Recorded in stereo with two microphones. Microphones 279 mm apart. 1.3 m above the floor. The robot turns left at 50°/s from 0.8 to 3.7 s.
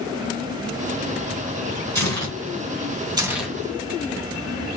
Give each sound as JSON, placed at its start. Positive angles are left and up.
{"t": 1.9, "sound": "tearing paper", "side_deg": -70, "distance_m": 2.5}